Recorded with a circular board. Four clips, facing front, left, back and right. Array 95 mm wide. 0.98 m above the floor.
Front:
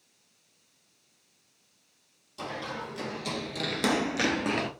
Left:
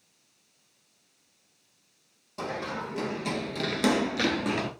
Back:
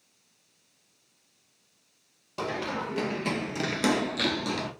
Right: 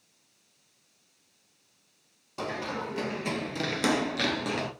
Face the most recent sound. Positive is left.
turn(degrees=15)